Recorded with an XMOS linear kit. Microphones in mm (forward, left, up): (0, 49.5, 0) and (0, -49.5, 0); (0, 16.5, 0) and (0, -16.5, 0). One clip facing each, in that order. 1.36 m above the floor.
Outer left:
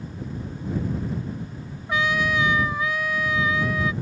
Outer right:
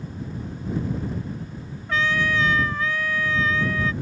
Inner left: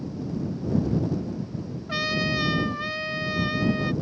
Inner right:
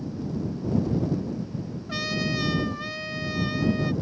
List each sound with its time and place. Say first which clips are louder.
1.9 s a trumpet: even, inner left 3 dB; 15° left (ahead or behind)